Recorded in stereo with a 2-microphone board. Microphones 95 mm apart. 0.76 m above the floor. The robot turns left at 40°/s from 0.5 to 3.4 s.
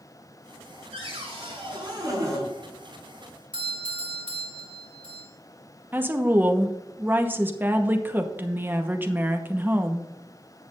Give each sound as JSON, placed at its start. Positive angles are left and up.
{"t": 0.9, "sound": "a cupboard door", "azimuth_deg": -85, "distance_m": 5.0}
{"t": 3.5, "sound": "a doorbell", "side_deg": -65, "distance_m": 2.0}
{"t": 5.9, "sound": "a woman speaking", "side_deg": -20, "distance_m": 0.9}